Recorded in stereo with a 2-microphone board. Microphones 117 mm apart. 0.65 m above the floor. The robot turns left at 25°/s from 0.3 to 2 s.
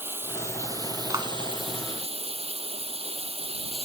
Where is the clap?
30° right (ahead or behind); by 1.3 s 25° right (ahead or behind).